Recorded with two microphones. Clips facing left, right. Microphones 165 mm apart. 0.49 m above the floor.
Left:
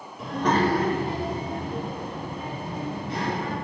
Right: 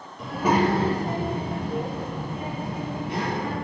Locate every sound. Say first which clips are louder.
0.2 s a child speaking: right 1 dB; centre (ahead or behind), 1.0 m; by 3.5 s 65° right (ahead or behind), 2.5 m